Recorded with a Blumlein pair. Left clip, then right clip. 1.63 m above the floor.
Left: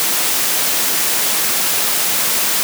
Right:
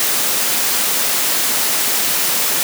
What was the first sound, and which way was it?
Only background noise.